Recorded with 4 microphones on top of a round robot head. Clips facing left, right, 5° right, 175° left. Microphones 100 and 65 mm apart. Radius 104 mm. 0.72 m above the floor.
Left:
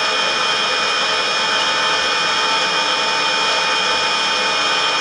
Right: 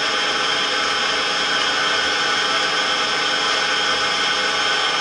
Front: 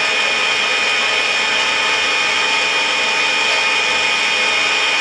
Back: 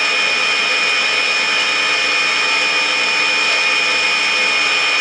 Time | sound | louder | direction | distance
0.0 | an engine running | left 2 dB, even | 85° left | 1.2 m